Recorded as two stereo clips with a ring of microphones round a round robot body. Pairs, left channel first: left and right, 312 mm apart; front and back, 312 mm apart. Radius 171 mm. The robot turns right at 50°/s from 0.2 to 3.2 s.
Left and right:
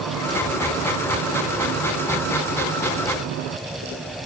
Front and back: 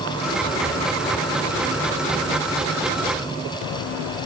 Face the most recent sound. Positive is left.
No sound to turn to.